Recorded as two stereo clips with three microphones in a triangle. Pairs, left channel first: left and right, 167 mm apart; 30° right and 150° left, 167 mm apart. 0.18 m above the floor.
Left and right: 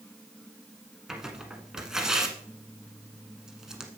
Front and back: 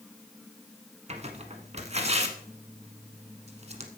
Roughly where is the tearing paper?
Behind.